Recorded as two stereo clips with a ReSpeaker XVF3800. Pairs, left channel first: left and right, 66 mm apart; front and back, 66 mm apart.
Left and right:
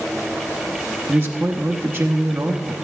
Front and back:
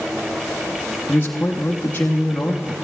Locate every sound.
1.1 s a man speaking: 50° right, 0.9 m